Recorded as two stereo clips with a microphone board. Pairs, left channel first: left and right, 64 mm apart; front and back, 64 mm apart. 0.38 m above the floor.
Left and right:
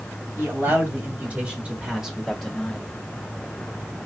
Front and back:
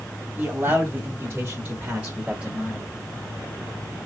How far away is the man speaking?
About 2.5 m.